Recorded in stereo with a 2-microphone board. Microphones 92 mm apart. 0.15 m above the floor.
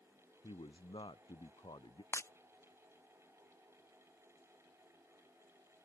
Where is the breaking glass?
30° left (ahead or behind).